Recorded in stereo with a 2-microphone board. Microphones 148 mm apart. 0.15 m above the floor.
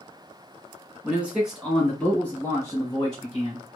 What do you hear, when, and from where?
1.0 s a man speaking: 10° right (ahead or behind), 1.7 m; by 3.6 s 35° left (ahead or behind), 2 m